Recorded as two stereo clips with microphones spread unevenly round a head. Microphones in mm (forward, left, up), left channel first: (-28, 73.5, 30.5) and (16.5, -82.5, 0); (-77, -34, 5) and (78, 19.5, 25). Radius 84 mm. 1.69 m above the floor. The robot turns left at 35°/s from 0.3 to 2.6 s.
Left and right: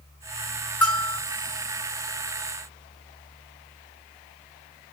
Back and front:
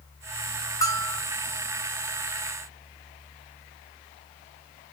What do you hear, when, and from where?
0.8 s a bell: 140° left, 1.6 m; by 1.2 s 125° left, 1.6 m